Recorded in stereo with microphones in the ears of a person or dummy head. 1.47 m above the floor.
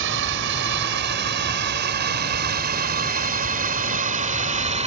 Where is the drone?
55° right (ahead or behind); by 4.9 s 25° right (ahead or behind).